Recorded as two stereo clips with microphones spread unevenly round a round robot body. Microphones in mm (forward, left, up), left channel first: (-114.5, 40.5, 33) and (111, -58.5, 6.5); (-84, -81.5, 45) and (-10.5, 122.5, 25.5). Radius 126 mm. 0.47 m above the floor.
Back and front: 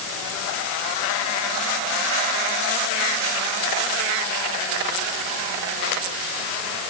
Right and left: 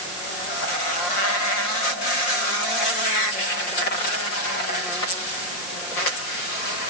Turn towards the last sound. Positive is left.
No sound to turn to.